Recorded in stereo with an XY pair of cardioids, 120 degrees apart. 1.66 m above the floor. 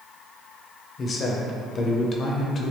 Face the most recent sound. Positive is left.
turn(degrees=35)